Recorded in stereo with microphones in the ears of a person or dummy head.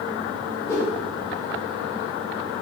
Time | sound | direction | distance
0.7 | a whoosh | 20° left (ahead or behind) | 1.1 m